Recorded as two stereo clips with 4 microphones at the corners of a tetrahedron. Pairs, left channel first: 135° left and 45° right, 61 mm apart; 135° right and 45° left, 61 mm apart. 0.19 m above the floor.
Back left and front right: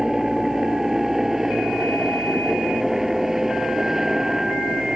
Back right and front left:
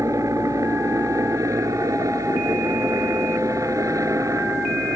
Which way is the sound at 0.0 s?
40° left.